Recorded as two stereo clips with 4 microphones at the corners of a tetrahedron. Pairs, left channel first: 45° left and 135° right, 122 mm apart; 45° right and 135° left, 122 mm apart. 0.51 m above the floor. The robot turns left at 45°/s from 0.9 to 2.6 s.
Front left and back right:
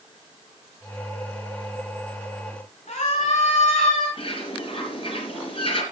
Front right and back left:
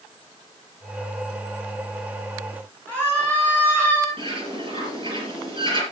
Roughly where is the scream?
Left.